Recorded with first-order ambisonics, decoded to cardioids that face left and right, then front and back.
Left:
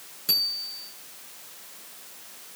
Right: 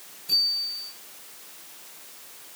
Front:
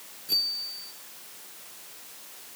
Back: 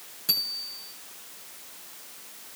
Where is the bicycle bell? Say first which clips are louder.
Right 2 dB, front 1 dB; 130° left, 8 m.